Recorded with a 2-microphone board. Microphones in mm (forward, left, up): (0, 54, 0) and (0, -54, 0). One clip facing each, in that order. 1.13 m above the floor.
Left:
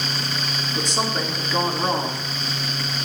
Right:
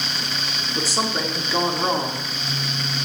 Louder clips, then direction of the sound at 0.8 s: Right 1 dB; 5° right (ahead or behind).